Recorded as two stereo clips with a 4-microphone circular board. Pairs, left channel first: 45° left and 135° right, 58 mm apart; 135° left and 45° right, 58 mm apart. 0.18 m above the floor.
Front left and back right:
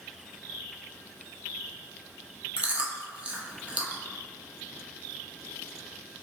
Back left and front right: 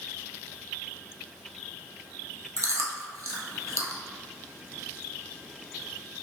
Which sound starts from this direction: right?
Chewing, at 2.6 s.